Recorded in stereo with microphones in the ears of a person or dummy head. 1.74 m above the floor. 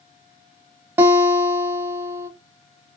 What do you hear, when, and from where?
1.0 s a guitar: 15° right (ahead or behind), 0.5 m